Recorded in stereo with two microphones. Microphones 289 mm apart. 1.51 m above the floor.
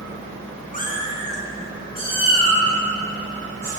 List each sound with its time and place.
0.7 s a cat meowing: 30° left (ahead or behind), 0.7 m; by 3.7 s 10° left (ahead or behind), 2.5 m